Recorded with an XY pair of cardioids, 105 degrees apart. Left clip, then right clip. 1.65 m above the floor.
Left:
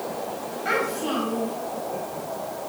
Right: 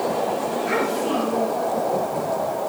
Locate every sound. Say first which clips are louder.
0.7 s a child speaking: left 1 dB; 70° left, 3 m